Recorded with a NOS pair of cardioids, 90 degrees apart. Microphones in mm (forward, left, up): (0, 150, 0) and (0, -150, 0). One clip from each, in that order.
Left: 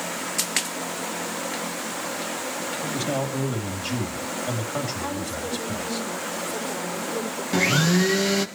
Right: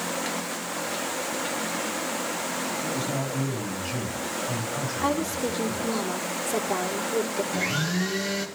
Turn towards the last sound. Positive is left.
turn(degrees=50)